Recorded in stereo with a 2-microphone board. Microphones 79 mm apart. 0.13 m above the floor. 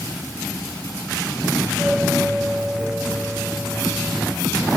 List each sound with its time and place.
1.6 s a doorbell: 10° right (ahead or behind)